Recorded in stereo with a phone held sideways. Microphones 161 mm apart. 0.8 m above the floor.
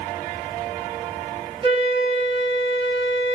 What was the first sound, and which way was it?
A flute, 35° right (ahead or behind).